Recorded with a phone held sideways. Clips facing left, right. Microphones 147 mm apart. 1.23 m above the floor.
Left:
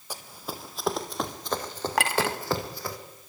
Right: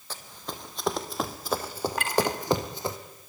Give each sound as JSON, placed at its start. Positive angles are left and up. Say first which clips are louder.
{"t": 0.1, "sound": "running footsteps", "louder": "left 1 dB", "side_deg": 15, "distance_m": 2.0}
{"t": 2.0, "sound": "a clink", "louder": "even", "side_deg": 85, "distance_m": 1.7}